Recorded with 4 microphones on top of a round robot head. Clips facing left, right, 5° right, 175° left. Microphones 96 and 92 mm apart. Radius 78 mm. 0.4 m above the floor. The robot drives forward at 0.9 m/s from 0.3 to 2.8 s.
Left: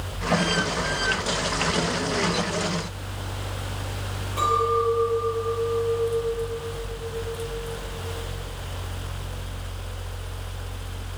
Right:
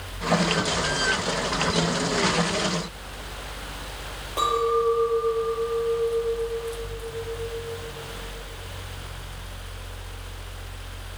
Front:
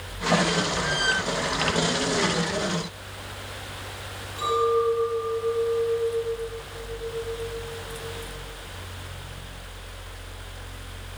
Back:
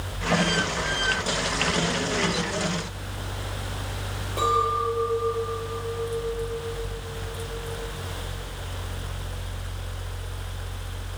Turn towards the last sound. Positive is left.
turn(degrees=-160)